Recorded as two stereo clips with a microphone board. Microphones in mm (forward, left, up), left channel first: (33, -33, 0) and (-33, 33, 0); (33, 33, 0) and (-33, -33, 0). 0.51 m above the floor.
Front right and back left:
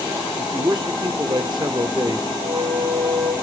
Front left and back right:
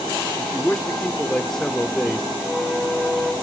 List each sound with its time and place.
0.4 s a man speaking: 130° left, 1.1 m
2.4 s a flute: 140° left, 2 m